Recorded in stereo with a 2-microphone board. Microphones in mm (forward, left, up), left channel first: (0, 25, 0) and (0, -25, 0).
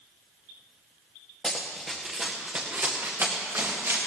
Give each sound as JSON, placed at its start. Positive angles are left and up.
{"t": 1.4, "sound": "running footsteps", "side_deg": 10, "distance_m": 2.0}